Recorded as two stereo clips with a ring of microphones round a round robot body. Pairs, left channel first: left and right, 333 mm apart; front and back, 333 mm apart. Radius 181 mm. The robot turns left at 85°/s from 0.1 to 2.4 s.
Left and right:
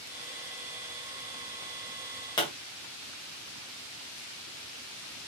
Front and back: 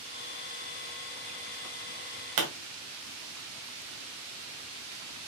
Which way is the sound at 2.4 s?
165° left.